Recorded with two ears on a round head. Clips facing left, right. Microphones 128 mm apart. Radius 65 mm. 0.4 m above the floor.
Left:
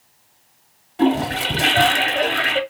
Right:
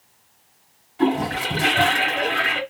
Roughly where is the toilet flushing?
Left.